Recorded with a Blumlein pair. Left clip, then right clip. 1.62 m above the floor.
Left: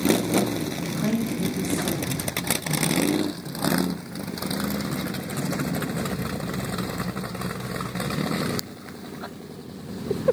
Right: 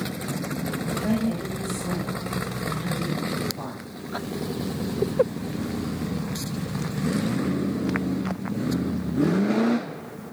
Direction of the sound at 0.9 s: 55° left.